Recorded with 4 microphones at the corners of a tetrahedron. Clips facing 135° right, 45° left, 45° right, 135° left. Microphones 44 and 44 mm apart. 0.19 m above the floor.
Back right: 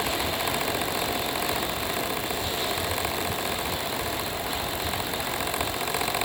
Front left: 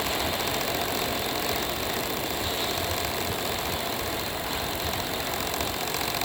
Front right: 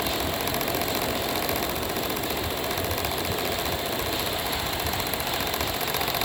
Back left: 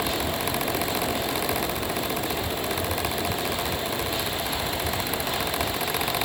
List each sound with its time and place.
Only background noise.